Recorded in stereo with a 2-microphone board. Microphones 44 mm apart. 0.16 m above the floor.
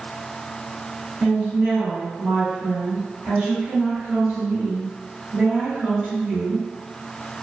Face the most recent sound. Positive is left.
turn(degrees=-20)  # may be behind; listen again after turning